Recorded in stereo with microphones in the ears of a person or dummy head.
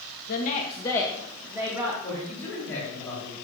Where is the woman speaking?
50° left (ahead or behind), 1.1 m; by 1.9 s 25° right (ahead or behind), 1.7 m.